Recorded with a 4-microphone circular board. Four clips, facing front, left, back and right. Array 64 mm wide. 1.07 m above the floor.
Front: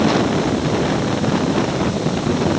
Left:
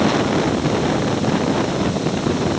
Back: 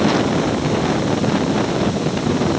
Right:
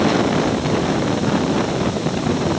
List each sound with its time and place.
Only background noise.